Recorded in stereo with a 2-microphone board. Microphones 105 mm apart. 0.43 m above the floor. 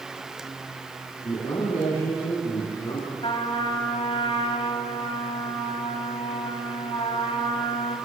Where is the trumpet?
60° left (ahead or behind), 2.5 m.